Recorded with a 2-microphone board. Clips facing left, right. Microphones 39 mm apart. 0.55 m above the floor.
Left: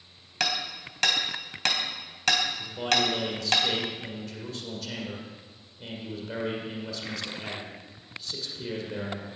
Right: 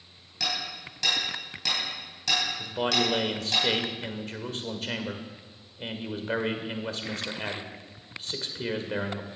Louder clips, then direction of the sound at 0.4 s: Left 2 dB; 60° left (ahead or behind).